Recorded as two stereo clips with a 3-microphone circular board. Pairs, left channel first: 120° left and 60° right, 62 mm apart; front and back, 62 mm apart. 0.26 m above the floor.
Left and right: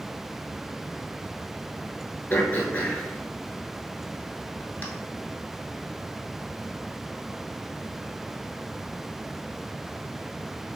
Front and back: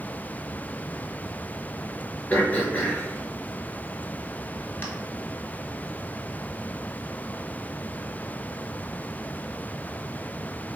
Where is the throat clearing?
55° left, 0.8 m.